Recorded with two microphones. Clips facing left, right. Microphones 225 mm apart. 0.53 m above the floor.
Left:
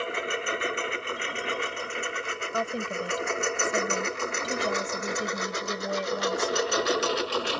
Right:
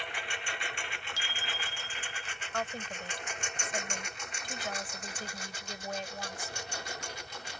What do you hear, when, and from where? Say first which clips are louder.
0.0 s a lawn mower: left 12 dB; 60° left (ahead or behind); by 7.6 s 85° left
1.2 s a bicycle bell: left 13 dB; 85° right
2.5 s a woman speaking: left 7 dB; 45° left (ahead or behind)